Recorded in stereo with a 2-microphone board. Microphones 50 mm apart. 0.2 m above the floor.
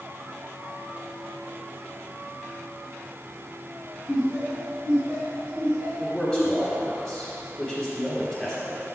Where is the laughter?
10° right (ahead or behind), 1.8 m; by 6.9 s 55° right (ahead or behind), 3 m.